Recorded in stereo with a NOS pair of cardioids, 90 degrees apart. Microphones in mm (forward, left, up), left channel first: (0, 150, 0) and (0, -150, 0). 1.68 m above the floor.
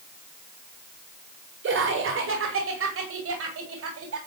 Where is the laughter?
50° right, 5.5 m; by 4.2 s 55° right, 6.5 m.